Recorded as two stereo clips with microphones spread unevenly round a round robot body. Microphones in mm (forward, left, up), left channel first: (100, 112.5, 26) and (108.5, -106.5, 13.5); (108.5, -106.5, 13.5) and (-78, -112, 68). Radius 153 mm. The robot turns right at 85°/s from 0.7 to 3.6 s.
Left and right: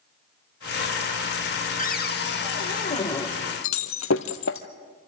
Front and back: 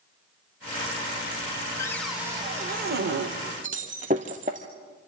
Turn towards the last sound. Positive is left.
turn(degrees=130)